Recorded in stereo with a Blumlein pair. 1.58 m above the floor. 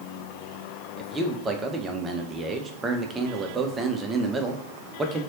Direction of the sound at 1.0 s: 15° right.